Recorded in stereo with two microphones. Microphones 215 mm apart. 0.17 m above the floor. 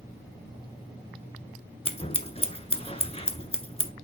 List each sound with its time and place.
1.9 s scissors: 25° left (ahead or behind), 0.8 m